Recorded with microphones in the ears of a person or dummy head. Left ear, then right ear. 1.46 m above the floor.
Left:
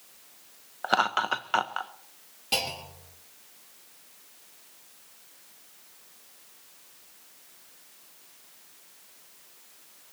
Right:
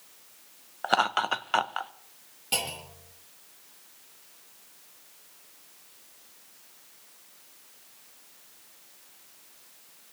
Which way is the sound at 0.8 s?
10° right (ahead or behind).